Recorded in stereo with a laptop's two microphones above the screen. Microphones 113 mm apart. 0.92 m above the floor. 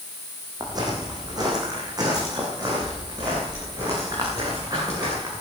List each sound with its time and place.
0.6 s footsteps: 35° right (ahead or behind), 3 m